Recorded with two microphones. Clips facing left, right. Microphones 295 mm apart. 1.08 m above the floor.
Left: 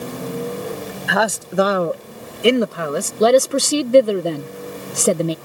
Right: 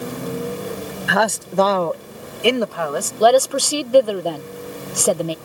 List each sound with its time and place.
1.1 s a man speaking: centre (ahead or behind); by 3.1 s 25° left (ahead or behind)
3.2 s a woman speaking: 25° left (ahead or behind)